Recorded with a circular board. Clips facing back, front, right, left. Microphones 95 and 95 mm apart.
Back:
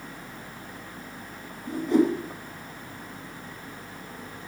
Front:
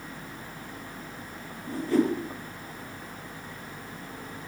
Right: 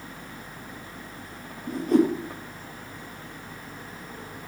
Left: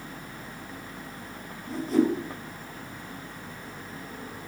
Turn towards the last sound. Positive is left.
turn(degrees=-110)